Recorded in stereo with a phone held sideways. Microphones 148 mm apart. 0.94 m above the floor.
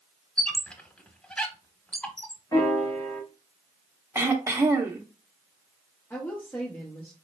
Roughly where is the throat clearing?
Centre.